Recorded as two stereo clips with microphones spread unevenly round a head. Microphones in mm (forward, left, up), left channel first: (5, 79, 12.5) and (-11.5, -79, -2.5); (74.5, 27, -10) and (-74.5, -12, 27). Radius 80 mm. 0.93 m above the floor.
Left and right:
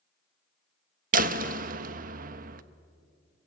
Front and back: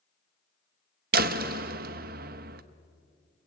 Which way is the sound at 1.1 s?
130° right.